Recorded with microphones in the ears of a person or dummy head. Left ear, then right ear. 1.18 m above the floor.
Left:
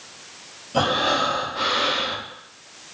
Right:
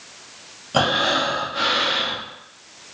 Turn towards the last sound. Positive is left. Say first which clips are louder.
# right 2 dB
turn(degrees=-50)  # may be behind; listen again after turning